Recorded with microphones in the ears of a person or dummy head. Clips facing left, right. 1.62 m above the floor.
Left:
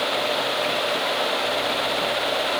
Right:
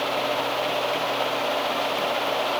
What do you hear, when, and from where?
Only background noise.